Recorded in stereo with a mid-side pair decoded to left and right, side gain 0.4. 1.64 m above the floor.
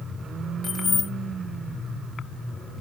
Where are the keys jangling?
50° left, 1.9 m.